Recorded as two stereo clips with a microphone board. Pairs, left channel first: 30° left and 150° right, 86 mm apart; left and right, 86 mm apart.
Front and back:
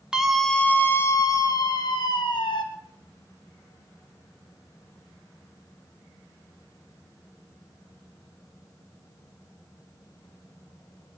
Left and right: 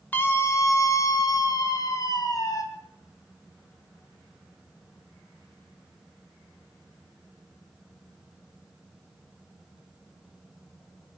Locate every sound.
0.1 s a scream: 140° left, 1.3 m; by 2.6 s 45° left, 2.5 m